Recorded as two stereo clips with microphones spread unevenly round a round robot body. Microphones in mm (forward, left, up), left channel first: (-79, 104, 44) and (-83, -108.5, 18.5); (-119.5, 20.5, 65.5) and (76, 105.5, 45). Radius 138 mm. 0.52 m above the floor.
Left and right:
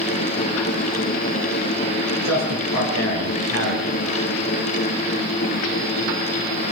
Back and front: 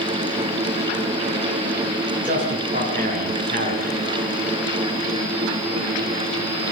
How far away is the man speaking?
About 8.5 m.